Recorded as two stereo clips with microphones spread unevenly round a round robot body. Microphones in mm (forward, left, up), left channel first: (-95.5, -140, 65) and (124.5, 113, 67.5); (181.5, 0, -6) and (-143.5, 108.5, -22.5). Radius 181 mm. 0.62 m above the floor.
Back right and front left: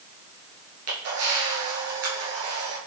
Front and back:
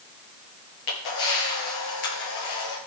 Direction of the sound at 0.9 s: Straight ahead.